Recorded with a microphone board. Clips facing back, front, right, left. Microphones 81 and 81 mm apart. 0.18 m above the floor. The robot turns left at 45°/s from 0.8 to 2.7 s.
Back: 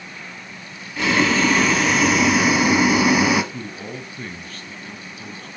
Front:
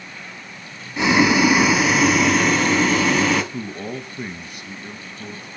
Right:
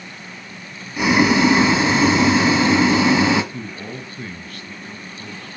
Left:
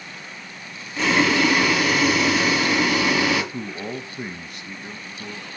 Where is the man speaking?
50° left, 1.1 m.